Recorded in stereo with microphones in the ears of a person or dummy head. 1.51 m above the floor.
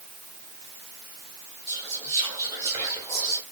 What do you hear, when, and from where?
1.7 s whispering: 25° right (ahead or behind), 1.7 m